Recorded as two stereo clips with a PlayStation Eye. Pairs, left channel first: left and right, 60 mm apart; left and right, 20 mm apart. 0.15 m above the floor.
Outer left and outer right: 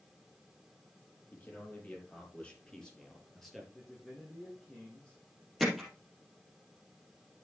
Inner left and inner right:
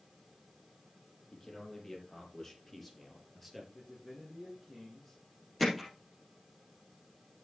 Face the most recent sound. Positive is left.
turn(degrees=0)  # may be behind; listen again after turning